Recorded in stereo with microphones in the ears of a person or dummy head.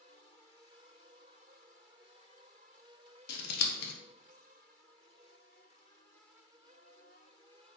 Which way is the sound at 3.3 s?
60° left (ahead or behind).